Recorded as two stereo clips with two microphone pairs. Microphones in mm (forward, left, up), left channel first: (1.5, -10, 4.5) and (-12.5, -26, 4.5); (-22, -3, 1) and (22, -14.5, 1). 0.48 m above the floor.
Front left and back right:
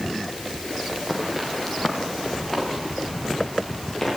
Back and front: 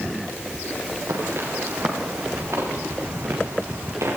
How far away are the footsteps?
About 5.5 m.